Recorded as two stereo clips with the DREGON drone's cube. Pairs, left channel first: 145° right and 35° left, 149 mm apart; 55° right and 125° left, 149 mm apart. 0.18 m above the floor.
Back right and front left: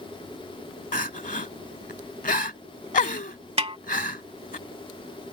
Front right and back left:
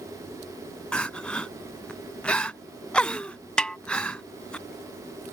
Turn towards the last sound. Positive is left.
turn(degrees=25)